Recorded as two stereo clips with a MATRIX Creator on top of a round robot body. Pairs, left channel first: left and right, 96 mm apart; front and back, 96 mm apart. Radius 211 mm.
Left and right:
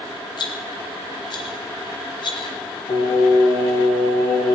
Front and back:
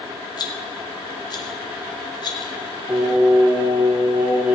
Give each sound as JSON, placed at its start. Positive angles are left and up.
{"t": 0.4, "sound": "a rattle", "azimuth_deg": 45, "distance_m": 0.8}
{"t": 2.9, "sound": "singing", "azimuth_deg": 105, "distance_m": 1.5}